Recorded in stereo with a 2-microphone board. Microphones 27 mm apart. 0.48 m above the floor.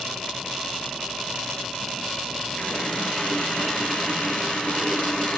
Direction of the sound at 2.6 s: 45° left (ahead or behind).